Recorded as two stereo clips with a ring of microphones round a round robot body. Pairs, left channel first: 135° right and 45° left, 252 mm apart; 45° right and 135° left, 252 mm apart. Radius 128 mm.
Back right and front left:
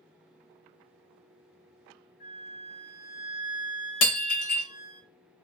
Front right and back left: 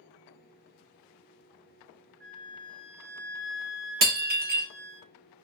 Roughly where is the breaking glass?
Behind.